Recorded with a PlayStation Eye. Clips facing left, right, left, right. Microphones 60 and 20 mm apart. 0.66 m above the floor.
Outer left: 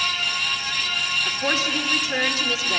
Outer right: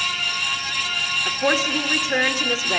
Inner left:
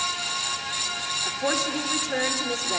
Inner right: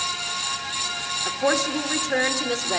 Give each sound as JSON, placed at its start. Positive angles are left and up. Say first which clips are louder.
{"t": 1.2, "sound": "a woman speaking", "louder": "outer right 6 dB, inner right 5 dB", "side_deg": -20, "distance_m": 1.7}